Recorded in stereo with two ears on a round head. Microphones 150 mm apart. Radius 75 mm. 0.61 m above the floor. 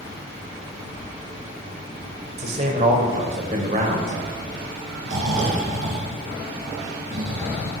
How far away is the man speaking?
About 3 m.